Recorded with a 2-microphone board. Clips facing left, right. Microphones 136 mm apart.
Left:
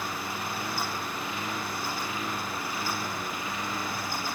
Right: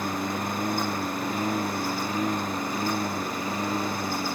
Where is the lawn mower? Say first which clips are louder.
Right 6 dB; 45° right (ahead or behind); by 4.4 s 35° right (ahead or behind).